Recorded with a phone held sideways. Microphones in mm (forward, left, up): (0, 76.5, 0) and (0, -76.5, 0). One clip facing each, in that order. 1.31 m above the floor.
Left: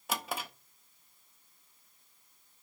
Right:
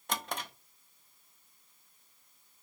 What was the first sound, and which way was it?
A drawer, 5° left (ahead or behind).